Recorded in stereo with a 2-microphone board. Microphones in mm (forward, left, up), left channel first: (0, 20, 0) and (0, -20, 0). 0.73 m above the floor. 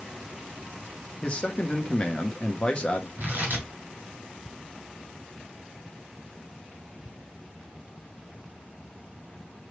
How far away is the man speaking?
About 0.8 m.